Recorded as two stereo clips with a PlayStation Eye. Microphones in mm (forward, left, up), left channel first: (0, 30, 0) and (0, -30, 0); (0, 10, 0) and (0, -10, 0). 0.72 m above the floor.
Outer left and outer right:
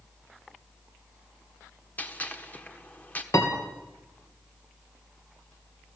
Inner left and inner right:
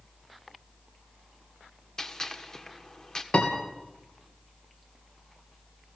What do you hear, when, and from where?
2.0 s a gunshot: 25° left (ahead or behind), 1.5 m
3.3 s a piano: 55° left (ahead or behind), 2.5 m